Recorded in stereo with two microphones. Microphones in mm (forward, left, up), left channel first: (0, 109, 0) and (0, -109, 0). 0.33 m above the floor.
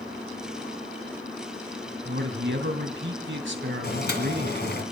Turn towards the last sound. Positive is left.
turn(degrees=50)  # may be behind; listen again after turning